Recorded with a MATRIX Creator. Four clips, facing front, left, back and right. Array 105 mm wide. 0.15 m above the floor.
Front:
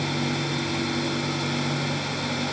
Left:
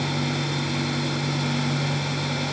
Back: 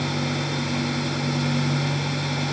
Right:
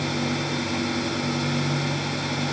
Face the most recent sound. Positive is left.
No sound to turn to.